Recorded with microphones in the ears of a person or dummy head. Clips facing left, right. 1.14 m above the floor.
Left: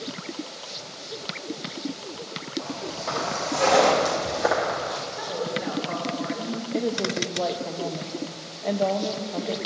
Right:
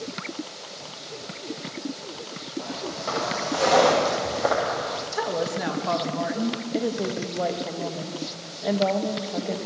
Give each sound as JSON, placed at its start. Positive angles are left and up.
{"t": 2.6, "sound": "footsteps", "side_deg": -20, "distance_m": 2.5}
{"t": 5.1, "sound": "a woman speaking", "side_deg": -80, "distance_m": 1.1}
{"t": 6.7, "sound": "a woman speaking", "side_deg": -5, "distance_m": 0.7}